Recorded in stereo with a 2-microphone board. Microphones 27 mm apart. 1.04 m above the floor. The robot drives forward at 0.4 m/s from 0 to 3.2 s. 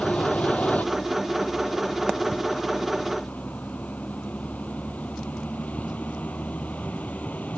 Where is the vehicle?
70° left (ahead or behind); by 7.6 s 80° left.